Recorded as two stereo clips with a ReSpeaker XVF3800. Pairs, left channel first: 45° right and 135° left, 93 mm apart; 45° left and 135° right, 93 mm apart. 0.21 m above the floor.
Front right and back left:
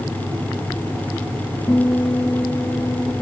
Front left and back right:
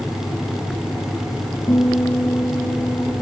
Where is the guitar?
10° left, 4 m.